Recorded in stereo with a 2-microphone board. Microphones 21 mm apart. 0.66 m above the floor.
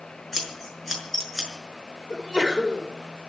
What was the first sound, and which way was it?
Scissors, 5° left (ahead or behind).